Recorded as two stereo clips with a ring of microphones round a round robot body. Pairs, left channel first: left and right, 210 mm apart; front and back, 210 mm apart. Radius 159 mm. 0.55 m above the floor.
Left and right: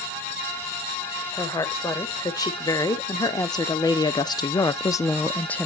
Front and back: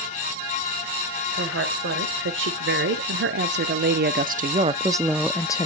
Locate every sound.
1.3 s a woman speaking: 165° left, 2.5 m; by 5.7 s 15° left, 0.7 m